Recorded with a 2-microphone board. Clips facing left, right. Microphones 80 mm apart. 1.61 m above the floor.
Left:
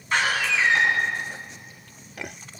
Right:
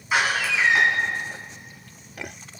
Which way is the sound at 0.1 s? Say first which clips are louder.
Right 1 dB; 5° right (ahead or behind).